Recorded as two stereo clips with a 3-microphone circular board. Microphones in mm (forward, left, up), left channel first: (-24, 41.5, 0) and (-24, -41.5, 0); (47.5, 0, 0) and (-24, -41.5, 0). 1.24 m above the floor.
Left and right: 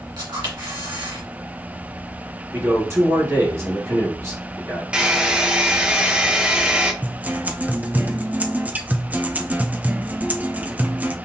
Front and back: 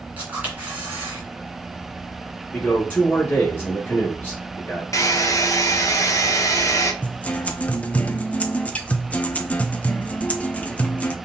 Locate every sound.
0.2 s a camera shutter: 80° right, 2.5 m
2.5 s a man speaking: 40° right, 1.9 m
4.9 s a hair dryer: 15° right, 0.8 m
7.0 s a guitar: 30° right, 0.5 m